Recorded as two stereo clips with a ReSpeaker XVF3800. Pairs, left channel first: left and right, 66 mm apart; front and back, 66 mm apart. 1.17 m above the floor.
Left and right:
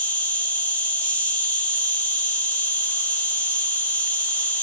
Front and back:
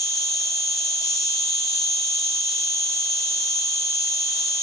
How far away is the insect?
About 2.5 m.